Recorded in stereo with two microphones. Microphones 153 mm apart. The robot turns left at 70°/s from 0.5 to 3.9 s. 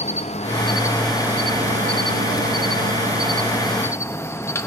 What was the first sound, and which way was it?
An insect, 40° left.